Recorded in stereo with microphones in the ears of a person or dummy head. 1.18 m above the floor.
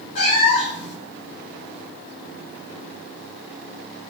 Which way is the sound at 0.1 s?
35° left (ahead or behind).